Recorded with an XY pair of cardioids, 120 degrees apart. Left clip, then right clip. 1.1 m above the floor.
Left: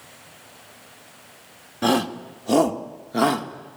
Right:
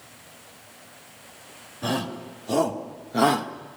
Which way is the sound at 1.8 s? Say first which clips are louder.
Left 7 dB; 65° left.